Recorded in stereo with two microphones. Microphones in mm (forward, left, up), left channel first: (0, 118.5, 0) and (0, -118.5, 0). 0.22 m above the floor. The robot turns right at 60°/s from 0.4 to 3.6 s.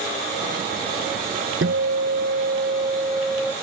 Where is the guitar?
115° right; by 3.5 s 5° left.